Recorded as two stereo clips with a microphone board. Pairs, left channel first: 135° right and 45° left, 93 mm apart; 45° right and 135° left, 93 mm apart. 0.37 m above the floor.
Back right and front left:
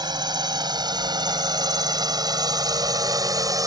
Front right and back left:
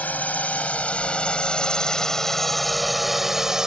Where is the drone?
25° left; by 3.7 s 55° left.